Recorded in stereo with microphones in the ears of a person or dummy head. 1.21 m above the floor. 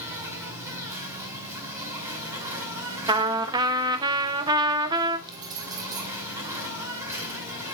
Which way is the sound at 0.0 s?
15° right (ahead or behind).